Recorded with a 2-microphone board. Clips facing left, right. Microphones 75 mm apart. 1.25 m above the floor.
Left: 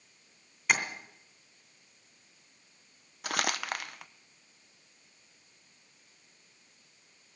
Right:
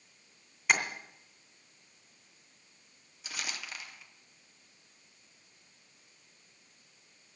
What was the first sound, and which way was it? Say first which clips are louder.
Tapping: even; 5° right (ahead or behind).